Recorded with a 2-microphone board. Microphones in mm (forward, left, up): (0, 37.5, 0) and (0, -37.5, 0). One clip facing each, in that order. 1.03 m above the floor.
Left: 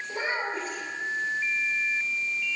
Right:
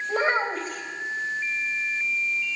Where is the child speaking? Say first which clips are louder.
Right 7 dB; 70° right (ahead or behind), 4 m.